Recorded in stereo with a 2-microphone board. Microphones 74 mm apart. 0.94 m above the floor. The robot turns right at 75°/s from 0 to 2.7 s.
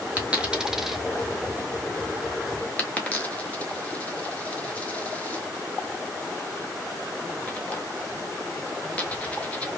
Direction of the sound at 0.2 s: 20° right (ahead or behind).